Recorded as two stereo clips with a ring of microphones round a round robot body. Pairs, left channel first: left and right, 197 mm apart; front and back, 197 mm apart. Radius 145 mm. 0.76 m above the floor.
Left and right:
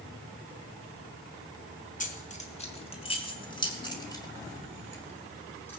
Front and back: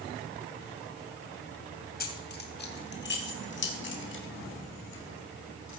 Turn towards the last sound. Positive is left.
turn(degrees=10)